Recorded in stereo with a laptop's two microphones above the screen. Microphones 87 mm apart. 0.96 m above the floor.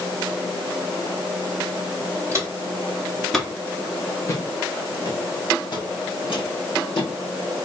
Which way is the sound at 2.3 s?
30° right (ahead or behind).